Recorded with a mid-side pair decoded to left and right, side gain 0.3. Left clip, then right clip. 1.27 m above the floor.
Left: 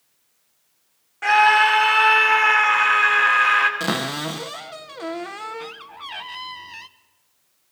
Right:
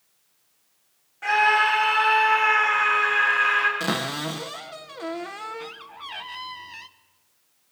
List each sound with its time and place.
1.2 s a scream: 65° left, 3.5 m
3.8 s a cupboard door: 25° left, 1.1 m